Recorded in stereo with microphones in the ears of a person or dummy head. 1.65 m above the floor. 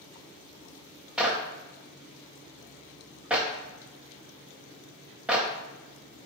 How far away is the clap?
About 0.6 m.